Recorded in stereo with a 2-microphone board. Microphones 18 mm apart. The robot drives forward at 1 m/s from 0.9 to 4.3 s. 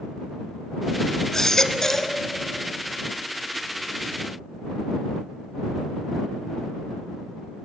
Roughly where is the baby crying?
Left.